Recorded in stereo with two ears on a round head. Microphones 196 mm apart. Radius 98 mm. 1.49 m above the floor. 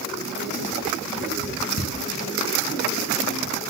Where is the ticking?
75° left (ahead or behind), 9.5 m.